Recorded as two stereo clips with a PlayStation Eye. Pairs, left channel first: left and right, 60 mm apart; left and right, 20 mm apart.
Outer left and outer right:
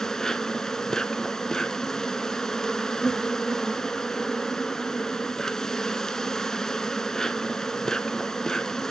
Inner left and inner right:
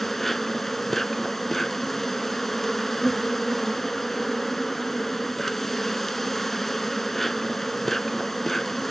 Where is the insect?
10° left (ahead or behind), 0.7 m.